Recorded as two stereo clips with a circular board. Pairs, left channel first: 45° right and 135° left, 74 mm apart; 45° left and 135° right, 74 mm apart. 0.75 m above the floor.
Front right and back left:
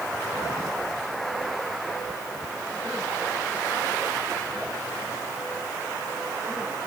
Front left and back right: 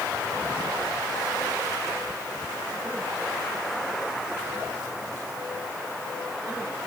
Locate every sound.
Only background noise.